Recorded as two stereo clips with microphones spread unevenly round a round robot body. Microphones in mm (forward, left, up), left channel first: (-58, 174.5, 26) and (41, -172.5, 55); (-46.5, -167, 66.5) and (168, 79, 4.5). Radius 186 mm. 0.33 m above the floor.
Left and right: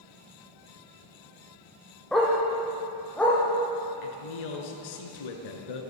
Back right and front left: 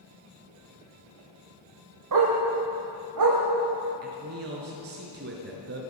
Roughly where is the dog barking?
Ahead.